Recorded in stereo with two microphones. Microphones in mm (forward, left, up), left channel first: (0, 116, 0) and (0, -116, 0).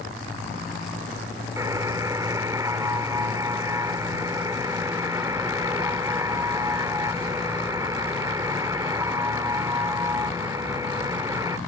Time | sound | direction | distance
1.6 | a buzzer | 15° right (ahead or behind) | ?